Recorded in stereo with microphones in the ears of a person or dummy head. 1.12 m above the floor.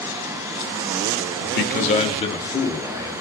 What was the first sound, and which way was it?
A man speaking, 70° left (ahead or behind).